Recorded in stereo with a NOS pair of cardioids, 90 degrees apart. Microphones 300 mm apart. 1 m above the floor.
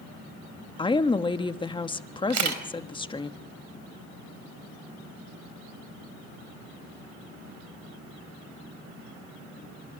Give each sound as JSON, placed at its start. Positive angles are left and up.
{"t": 0.8, "sound": "a woman speaking", "azimuth_deg": 15, "distance_m": 1.3}
{"t": 2.3, "sound": "a camera shutter", "azimuth_deg": -65, "distance_m": 4.0}